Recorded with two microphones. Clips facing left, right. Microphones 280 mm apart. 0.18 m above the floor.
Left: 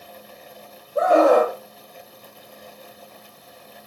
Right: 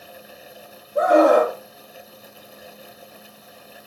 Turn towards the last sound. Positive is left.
turn(degrees=-20)  # may be behind; listen again after turning